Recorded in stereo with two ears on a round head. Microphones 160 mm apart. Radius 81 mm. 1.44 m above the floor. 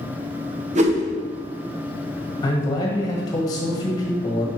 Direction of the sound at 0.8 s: 40° right (ahead or behind).